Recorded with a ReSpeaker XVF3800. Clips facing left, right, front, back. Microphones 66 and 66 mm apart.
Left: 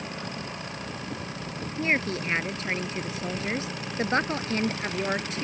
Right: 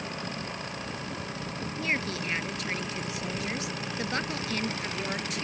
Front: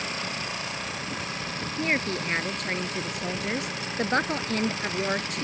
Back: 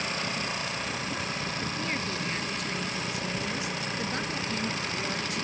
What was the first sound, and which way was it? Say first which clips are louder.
A woman speaking: left 5 dB, front 5 dB; 35° left.